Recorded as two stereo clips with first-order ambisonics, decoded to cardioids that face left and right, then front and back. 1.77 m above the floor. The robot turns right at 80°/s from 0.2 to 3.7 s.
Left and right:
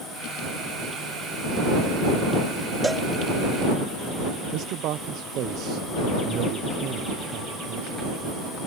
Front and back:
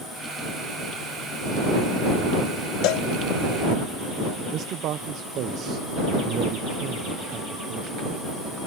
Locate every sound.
2.8 s a cowbell: 10° right; by 3.1 s 10° left
4.5 s a man speaking: 135° right